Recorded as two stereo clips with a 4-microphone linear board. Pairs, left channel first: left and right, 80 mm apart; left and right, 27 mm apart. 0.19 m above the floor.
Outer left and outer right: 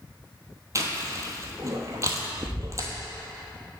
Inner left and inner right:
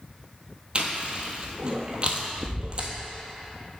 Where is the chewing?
40° right (ahead or behind), 1.0 m.